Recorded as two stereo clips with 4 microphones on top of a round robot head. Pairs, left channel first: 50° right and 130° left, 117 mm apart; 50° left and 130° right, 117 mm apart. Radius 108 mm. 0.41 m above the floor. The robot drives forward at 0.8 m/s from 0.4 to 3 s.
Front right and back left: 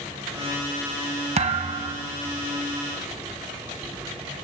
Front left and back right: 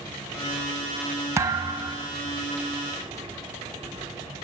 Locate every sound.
1.4 s a thud: 165° left, 1.3 m; by 2.1 s 170° left, 1.9 m